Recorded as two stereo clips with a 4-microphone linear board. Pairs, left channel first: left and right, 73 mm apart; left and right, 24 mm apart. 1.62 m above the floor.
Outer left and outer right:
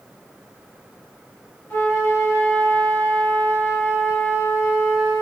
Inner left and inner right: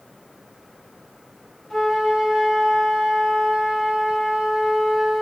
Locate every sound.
1.7 s a flute: 25° left (ahead or behind), 3.5 m